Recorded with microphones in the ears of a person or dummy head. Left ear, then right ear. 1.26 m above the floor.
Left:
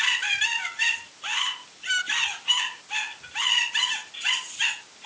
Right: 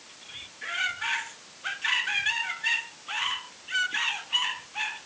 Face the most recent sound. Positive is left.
No sound to turn to.